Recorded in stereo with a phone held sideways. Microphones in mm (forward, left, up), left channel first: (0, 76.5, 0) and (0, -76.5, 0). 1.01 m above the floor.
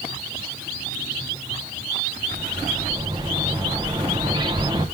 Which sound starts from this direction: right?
A bird, at 2.3 s.